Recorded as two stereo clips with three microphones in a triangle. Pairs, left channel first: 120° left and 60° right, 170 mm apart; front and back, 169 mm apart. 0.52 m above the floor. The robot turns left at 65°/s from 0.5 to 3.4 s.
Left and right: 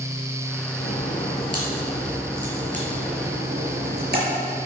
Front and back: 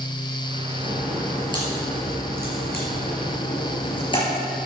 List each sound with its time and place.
0.8 s a crack: 110° left, 5.5 m; by 4.2 s 60° right, 5.5 m